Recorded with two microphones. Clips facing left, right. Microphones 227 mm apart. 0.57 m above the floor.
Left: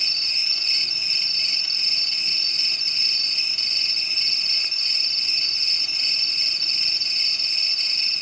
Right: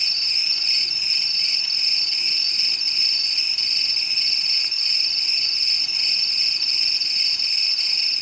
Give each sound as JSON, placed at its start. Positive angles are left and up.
{"t": 0.0, "sound": "an insect", "side_deg": 55, "distance_m": 1.1}